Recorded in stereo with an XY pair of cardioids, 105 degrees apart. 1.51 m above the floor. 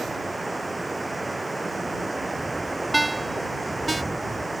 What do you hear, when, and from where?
0.0 s running water: 10° right
2.9 s a ringtone: 15° right